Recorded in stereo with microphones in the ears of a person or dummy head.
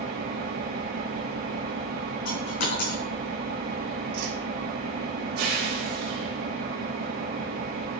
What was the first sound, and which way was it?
An engine running, 55° right (ahead or behind).